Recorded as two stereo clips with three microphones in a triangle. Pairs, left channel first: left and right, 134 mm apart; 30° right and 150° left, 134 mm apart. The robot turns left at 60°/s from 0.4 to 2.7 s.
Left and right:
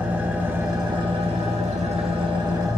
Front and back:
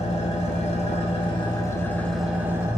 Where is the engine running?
15° right, 1.5 m; by 2.8 s 150° right, 1.5 m.